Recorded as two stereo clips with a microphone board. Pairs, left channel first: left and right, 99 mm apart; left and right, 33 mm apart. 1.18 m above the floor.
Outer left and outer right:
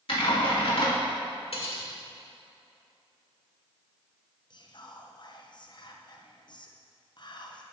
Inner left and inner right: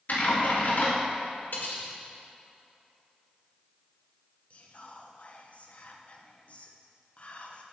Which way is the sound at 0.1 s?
70° left (ahead or behind).